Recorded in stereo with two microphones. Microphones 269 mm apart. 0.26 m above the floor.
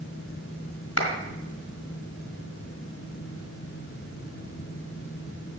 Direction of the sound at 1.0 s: 55° left (ahead or behind).